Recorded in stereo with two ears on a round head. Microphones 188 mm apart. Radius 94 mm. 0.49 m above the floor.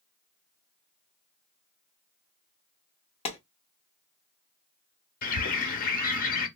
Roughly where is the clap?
Left.